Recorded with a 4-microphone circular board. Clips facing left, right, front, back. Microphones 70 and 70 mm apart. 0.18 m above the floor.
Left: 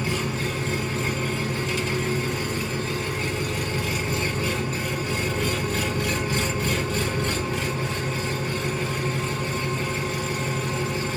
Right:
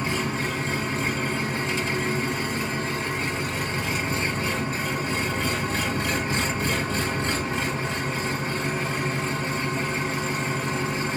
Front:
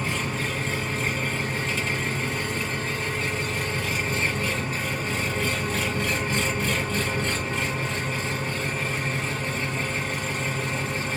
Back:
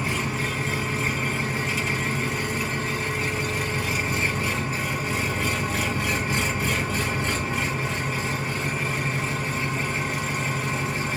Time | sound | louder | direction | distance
0.0 | an engine running | even, back 1 dB | 110° right | 1.4 m